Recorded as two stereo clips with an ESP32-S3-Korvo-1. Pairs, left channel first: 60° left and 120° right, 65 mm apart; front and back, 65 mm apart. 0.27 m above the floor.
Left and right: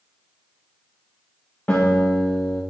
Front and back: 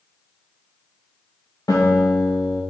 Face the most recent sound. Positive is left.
turn(degrees=0)